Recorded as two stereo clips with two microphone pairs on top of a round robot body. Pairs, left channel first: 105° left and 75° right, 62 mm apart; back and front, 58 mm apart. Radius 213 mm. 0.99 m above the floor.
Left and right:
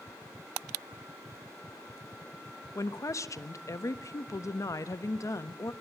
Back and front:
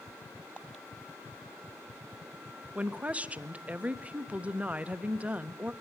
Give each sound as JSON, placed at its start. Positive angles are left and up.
{"t": 2.8, "sound": "a woman speaking", "azimuth_deg": 65, "distance_m": 1.3}